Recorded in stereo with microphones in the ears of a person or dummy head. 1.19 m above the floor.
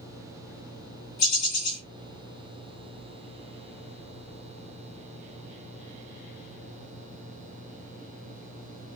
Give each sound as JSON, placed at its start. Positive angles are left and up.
{"t": 1.2, "sound": "a bird", "side_deg": 70, "distance_m": 1.3}